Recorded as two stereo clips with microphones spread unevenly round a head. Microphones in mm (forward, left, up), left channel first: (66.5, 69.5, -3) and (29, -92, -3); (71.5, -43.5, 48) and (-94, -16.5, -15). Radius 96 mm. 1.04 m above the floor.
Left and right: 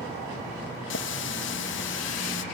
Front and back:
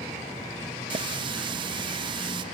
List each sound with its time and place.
0.9 s a running tap: 110° left, 0.8 m